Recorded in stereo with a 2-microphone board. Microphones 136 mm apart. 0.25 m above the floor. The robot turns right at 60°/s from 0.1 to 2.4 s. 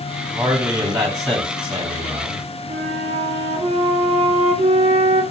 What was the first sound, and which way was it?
A man speaking, 170° right.